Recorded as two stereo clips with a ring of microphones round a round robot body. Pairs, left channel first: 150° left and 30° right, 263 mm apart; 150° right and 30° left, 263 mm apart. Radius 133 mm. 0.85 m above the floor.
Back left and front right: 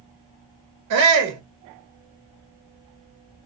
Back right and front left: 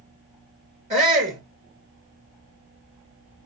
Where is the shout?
30° right, 0.7 m.